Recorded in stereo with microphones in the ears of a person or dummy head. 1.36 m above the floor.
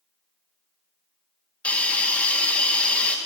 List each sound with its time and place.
1.6 s a hiss: 10° left (ahead or behind), 0.9 m